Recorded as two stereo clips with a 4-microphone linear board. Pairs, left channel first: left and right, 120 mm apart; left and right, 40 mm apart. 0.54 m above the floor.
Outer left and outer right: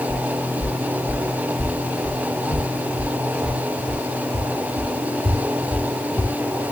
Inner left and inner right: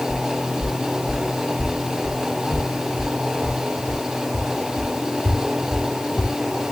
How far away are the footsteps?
About 7.5 m.